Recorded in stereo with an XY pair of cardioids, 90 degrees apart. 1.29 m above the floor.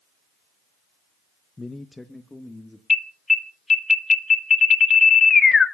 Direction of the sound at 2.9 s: 45° left.